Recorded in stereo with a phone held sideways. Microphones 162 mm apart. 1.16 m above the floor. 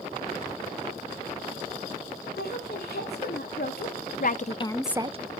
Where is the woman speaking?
85° left, 3 m; by 5.2 s 40° right (ahead or behind), 0.6 m.